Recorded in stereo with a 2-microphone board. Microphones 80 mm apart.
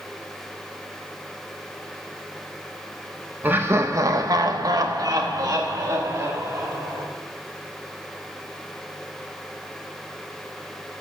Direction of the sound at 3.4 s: 25° right (ahead or behind).